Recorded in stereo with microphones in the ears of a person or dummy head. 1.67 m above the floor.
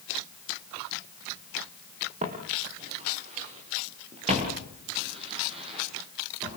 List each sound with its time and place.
2.2 s footsteps: 35° right (ahead or behind), 4 m; by 6.6 s 30° right (ahead or behind), 9 m